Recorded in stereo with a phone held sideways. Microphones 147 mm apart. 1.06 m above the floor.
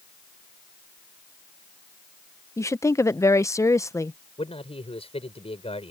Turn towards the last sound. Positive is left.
turn(degrees=40)  # may be behind; listen again after turning